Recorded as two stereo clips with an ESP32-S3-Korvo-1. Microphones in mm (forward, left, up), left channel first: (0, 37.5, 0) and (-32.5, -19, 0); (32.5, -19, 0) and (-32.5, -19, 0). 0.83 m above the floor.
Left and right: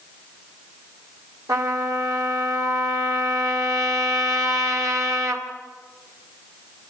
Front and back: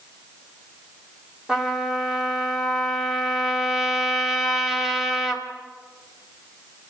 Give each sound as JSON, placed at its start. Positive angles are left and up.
{"t": 1.5, "sound": "a trumpet", "azimuth_deg": -100, "distance_m": 2.5}